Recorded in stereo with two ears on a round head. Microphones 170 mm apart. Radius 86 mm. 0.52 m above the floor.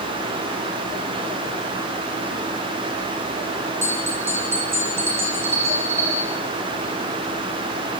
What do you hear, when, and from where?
3.8 s a bell: 15° right (ahead or behind), 3.5 m